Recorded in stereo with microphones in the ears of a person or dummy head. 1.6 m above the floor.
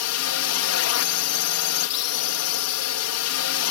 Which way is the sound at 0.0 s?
75° left (ahead or behind).